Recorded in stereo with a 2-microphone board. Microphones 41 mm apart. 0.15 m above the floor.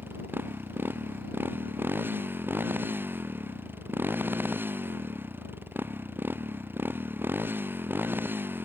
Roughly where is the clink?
I don't hear a clink.